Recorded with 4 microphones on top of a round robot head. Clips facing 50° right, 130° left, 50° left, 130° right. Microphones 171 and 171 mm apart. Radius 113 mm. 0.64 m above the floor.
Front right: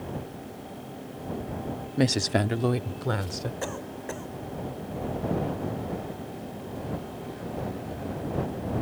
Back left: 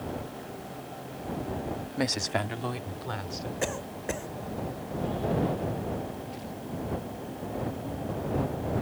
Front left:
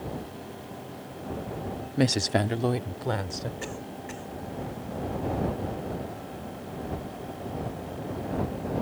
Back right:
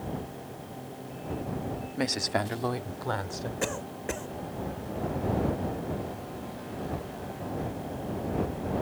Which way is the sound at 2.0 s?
5° left.